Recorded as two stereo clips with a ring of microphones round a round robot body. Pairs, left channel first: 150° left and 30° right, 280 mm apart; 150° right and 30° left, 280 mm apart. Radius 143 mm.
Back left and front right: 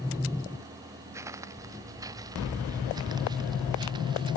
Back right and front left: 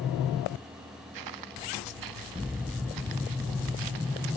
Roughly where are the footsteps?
Ahead left.